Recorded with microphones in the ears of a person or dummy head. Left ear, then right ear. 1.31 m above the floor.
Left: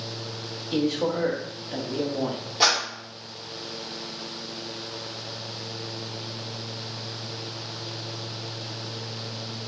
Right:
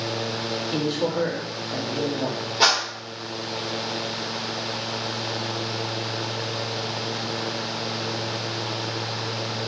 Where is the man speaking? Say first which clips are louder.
Left 2 dB; 20° left (ahead or behind), 0.9 m.